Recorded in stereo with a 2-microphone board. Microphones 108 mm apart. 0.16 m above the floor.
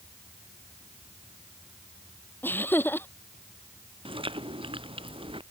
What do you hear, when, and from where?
2.4 s laughter: 20° left (ahead or behind)
4.0 s chewing: 55° right (ahead or behind)